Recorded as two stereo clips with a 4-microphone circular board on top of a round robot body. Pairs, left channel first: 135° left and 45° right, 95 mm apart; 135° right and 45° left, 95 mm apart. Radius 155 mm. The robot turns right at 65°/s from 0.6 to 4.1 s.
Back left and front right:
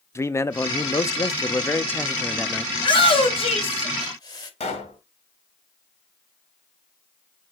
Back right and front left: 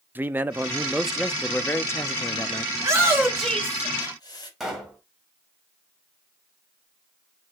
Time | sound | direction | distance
0.1 | a man speaking | 100° left | 0.8 m
2.8 | a shout | 90° left | 3.5 m
4.6 | a pop | 135° left | 2.5 m